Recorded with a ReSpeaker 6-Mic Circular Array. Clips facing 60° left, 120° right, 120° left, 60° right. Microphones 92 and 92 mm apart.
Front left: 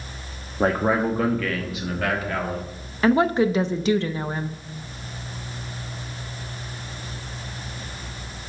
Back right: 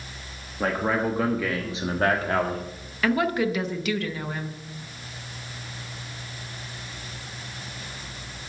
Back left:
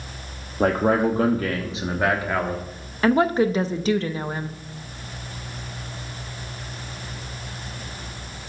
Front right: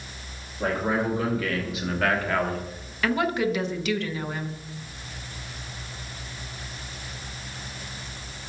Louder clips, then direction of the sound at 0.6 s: Front left 4 dB, back left 6 dB; 120° left.